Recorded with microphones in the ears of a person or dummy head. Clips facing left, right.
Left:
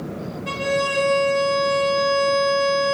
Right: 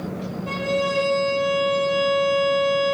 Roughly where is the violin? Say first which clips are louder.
Even; left.